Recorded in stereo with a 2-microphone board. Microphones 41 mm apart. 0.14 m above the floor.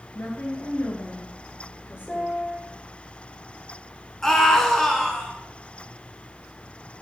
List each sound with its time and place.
0.1 s a woman speaking: 55° left (ahead or behind), 2.5 m; by 2.3 s 50° left (ahead or behind), 3 m
2.1 s a piano: 15° left (ahead or behind), 3 m
4.2 s a scream: 10° left (ahead or behind), 1.6 m